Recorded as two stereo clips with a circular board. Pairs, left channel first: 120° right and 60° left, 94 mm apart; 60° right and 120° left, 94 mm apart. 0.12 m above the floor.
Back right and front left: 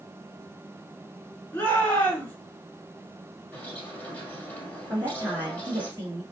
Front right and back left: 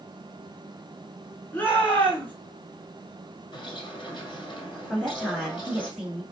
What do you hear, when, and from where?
1.5 s a shout: 90° right, 1.3 m
3.5 s a bird: 55° right, 1.6 m
4.9 s a woman speaking: 40° left, 1.3 m